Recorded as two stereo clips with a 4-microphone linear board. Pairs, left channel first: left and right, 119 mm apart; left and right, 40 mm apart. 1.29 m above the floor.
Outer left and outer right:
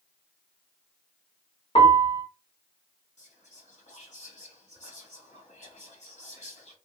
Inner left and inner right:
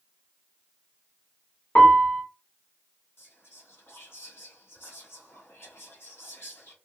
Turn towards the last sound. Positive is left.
turn(degrees=75)  # may be behind; listen again after turning